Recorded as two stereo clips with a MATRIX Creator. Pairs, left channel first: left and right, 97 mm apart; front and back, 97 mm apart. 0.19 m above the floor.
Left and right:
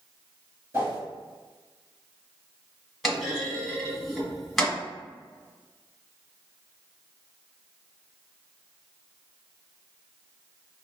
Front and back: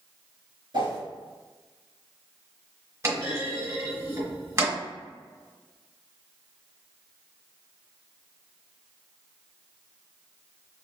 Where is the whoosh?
150° right, 2.0 m.